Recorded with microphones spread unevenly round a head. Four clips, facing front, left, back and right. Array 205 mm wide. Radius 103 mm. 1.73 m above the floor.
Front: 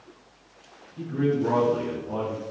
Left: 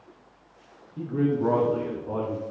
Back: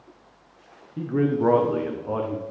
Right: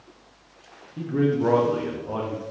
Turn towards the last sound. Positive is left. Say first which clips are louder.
# right 2 dB, back 2 dB
turn(degrees=-165)